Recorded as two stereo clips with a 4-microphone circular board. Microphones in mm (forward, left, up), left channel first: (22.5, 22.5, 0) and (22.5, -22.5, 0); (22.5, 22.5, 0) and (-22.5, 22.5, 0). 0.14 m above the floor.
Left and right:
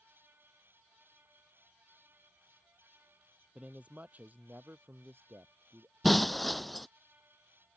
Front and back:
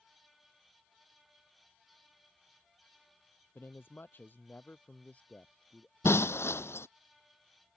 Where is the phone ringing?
No phone ringing in this recording.